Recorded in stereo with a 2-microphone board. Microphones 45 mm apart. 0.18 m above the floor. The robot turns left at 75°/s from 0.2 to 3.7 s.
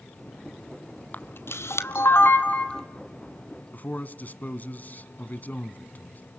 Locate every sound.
1.1 s a camera shutter: 40° left (ahead or behind), 1.3 m; by 2.8 s 15° left (ahead or behind), 1.3 m
3.7 s a man speaking: 40° left (ahead or behind), 1.2 m